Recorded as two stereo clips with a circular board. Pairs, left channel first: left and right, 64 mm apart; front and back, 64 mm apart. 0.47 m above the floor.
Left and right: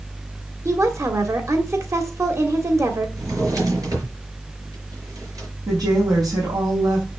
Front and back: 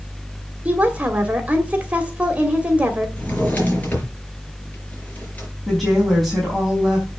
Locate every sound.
0.7 s a woman speaking: 115° right, 2 m
3.2 s a drawer: 65° right, 4.5 m
5.7 s a woman speaking: 90° right, 4.5 m